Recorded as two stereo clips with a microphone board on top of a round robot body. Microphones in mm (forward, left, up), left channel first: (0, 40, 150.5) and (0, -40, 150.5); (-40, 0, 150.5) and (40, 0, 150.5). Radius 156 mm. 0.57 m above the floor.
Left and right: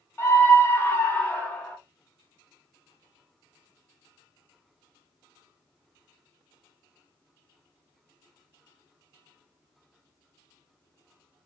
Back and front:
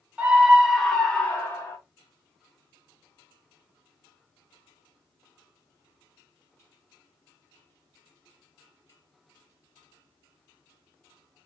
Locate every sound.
0.2 s a scream: 60° left, 1.4 m; by 1.8 s 155° left, 1.4 m